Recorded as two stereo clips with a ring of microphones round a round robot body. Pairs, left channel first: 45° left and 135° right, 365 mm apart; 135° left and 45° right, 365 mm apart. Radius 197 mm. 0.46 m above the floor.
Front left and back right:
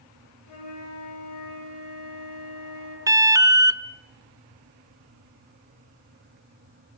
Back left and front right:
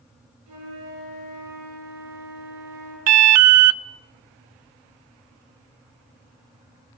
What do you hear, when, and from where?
0.5 s a flute: straight ahead, 9.5 m
3.1 s an alarm: 55° right, 0.6 m